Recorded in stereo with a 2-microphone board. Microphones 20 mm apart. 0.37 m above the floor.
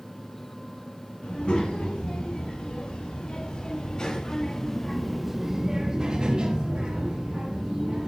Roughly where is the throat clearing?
No throat clearing in this recording.